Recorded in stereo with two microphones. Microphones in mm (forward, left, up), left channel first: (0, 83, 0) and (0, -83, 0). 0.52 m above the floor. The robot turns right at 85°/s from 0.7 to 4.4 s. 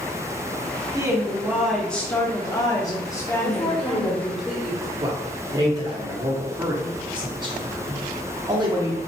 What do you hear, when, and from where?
0.9 s a woman speaking: 20° right (ahead or behind), 0.8 m; by 4.3 s 10° right (ahead or behind), 0.8 m
3.4 s a woman speaking: 100° left, 1.1 m; by 4.9 s 175° right, 1.1 m
5.0 s a man speaking: 30° right (ahead or behind), 1.0 m